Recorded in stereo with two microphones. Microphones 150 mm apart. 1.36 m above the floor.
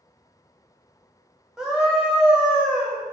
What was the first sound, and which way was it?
A scream, 5° right (ahead or behind).